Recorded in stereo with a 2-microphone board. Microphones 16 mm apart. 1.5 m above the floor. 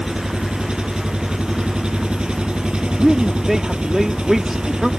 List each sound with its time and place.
0.0 s an engine running: 65° right (ahead or behind)
3.0 s a man speaking: 20° right (ahead or behind)